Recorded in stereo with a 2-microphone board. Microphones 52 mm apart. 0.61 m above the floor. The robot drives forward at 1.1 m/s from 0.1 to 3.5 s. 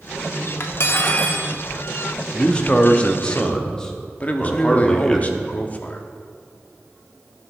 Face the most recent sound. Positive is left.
turn(degrees=35)  # may be behind; listen again after turning